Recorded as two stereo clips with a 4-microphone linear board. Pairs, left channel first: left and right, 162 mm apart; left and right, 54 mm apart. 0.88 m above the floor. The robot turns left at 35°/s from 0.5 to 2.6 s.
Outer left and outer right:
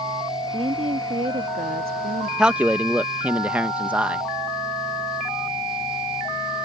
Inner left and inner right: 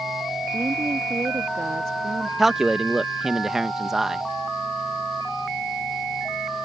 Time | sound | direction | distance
0.5 | a woman speaking | 35° right | ?
2.4 | a man speaking | 5° right (ahead or behind) | ?